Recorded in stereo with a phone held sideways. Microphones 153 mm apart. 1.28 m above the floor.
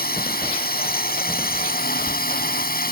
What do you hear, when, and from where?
0.0 s a drone: 85° left; by 2.9 s 75° left (ahead or behind)